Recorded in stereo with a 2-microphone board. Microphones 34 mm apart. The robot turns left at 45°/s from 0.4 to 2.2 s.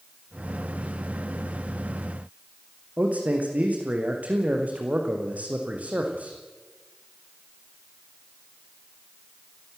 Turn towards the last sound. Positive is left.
turn(degrees=-45)  # may be behind; listen again after turning